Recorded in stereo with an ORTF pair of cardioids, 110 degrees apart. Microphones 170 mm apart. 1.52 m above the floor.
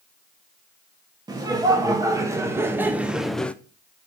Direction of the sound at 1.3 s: 25° right.